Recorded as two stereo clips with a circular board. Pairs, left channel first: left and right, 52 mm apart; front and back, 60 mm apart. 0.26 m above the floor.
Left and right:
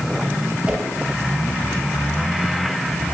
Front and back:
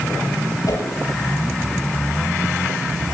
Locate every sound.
0.7 s a whoosh: 15° right, 4 m